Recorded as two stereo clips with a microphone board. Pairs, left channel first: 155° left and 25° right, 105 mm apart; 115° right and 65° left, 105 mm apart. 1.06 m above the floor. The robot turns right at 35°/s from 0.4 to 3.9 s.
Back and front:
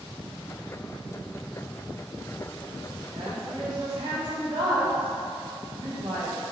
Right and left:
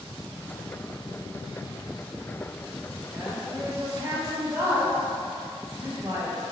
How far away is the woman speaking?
About 1.2 m.